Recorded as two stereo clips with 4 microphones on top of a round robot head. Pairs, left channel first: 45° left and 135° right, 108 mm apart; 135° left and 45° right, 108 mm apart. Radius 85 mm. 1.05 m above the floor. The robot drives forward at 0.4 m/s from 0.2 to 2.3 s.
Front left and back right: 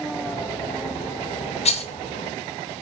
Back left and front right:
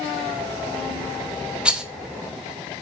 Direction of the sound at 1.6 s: 35° left.